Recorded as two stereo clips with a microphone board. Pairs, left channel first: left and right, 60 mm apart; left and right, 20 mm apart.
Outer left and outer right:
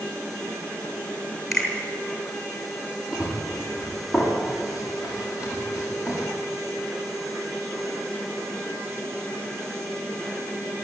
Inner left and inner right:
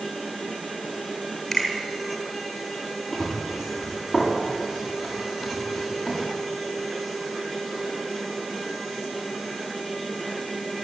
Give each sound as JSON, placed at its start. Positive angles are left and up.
{"t": 1.5, "sound": "a finger snap", "side_deg": 0, "distance_m": 8.0}
{"t": 3.1, "sound": "running footsteps", "side_deg": -15, "distance_m": 9.0}